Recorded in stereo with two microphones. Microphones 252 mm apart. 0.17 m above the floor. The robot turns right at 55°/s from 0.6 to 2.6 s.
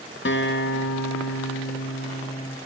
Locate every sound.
0.2 s a guitar: 55° left, 0.6 m; by 2.6 s 165° left, 0.6 m